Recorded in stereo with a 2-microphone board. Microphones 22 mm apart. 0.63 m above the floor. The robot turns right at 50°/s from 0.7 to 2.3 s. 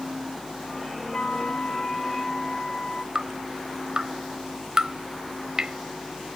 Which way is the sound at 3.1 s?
30° right (ahead or behind).